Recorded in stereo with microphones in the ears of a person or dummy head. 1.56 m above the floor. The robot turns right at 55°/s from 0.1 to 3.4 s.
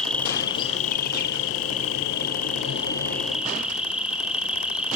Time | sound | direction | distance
0.0 | an insect | straight ahead | 2 m